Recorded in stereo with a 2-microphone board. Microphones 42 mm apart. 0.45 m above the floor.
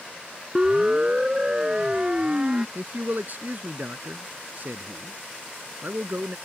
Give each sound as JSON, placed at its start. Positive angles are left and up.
{"t": 0.6, "sound": "a siren", "side_deg": -20}
{"t": 2.8, "sound": "a man speaking", "side_deg": -50}